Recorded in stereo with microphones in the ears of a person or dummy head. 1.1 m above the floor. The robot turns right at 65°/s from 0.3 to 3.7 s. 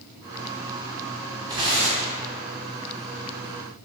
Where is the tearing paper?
160° right, 0.8 m; by 2.2 s 115° right, 0.8 m.